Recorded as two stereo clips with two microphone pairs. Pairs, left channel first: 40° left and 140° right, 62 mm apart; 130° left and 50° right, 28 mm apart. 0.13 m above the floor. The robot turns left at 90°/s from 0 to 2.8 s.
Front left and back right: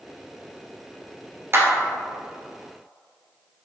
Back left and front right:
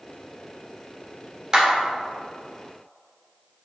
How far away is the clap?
About 1.7 m.